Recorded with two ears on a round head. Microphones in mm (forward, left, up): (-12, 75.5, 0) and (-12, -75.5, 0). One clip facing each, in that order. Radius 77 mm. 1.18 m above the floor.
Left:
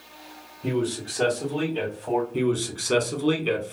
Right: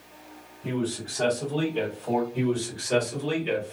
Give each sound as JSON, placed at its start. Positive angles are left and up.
{"t": 0.6, "sound": "a man speaking", "side_deg": 45, "distance_m": 0.9}
{"t": 2.3, "sound": "a man speaking", "side_deg": 55, "distance_m": 1.2}